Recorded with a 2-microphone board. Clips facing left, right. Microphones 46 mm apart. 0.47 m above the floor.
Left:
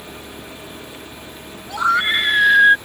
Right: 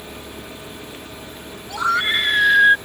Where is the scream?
10° left (ahead or behind); by 2.8 s 5° left (ahead or behind).